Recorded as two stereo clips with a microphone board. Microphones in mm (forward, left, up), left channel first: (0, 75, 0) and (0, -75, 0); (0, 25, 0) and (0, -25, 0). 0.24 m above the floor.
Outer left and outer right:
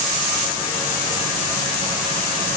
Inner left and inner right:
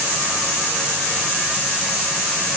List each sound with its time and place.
Only background noise.